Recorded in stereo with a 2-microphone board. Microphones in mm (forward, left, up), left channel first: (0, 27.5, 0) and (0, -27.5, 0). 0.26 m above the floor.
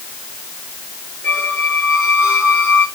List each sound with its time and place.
1.2 s a squeak: 50° left (ahead or behind), 8.5 m